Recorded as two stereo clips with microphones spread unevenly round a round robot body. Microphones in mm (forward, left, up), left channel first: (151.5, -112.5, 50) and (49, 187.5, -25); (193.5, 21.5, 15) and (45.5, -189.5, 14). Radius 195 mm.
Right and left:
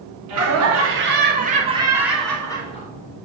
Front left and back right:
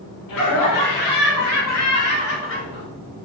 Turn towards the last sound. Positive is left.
turn(degrees=0)